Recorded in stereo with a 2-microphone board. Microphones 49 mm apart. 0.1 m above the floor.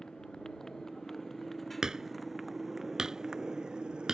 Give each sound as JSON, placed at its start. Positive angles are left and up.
{"t": 0.0, "sound": "a motorcycle", "side_deg": 15}
{"t": 1.8, "sound": "hammering", "side_deg": -15}